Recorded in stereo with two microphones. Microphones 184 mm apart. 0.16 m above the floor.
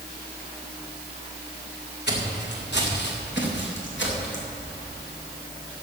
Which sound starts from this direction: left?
Footsteps, at 2.1 s.